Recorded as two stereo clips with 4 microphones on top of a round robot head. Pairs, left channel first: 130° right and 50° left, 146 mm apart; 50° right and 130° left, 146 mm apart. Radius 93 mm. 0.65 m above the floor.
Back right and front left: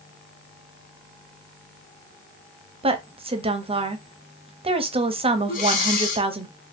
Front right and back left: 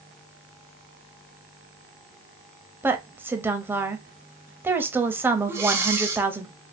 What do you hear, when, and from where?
2.8 s a woman speaking: 60° left, 0.6 m
5.5 s breathing: 160° right, 0.5 m